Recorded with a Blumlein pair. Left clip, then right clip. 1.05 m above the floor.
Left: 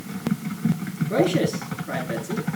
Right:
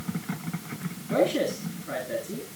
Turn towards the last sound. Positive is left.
turn(degrees=10)